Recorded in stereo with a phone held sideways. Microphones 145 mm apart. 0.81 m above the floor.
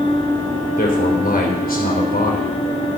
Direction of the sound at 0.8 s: 70° left (ahead or behind).